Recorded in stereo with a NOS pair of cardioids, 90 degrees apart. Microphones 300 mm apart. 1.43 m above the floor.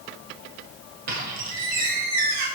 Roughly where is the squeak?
Ahead right.